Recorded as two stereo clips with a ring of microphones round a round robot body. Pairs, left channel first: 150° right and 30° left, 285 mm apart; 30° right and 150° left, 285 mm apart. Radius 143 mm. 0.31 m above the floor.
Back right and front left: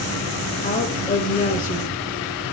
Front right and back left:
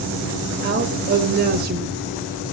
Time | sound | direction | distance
0.6 | a woman speaking | 170° left | 1.5 m